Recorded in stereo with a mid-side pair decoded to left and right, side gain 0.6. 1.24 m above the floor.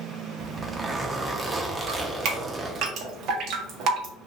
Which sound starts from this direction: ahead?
A zipper, at 0.4 s.